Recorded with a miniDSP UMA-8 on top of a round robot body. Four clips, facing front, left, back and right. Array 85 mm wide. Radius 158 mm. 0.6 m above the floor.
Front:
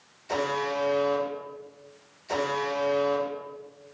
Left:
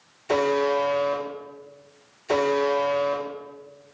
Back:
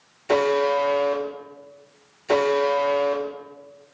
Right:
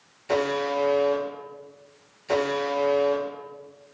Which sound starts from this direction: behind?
A buzzer, at 0.3 s.